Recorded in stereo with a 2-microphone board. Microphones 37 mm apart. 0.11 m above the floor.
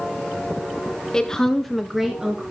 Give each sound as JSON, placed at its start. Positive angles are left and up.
{"t": 1.1, "sound": "a woman speaking", "side_deg": 20, "distance_m": 1.6}